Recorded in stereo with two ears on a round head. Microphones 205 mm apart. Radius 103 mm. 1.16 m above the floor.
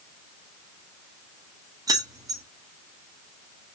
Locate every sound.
1.9 s keys jangling: 15° right (ahead or behind), 1.1 m